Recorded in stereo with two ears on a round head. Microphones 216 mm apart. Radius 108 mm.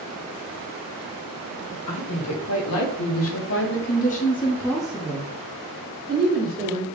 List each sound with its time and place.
1.9 s a woman speaking: 75° left (ahead or behind), 1.5 m; by 6.8 s 45° right (ahead or behind), 1.5 m